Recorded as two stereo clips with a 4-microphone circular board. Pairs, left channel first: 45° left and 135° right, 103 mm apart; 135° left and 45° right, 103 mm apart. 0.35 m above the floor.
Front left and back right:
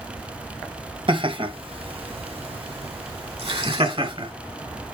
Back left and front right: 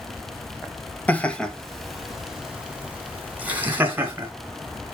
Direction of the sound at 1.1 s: 150° right.